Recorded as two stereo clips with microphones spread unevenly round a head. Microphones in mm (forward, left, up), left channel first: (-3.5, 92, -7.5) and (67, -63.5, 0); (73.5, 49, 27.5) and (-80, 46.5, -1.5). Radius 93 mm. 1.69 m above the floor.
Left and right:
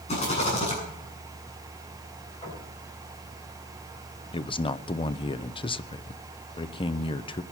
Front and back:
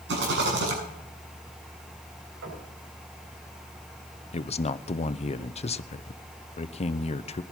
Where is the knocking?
Straight behind, 8 m.